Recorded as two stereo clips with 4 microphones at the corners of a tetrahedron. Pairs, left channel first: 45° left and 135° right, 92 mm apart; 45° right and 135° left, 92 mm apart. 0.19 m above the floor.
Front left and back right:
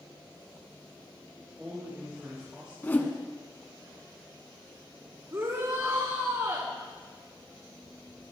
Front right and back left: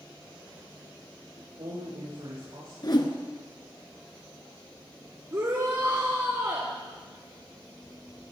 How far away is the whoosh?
About 1.3 m.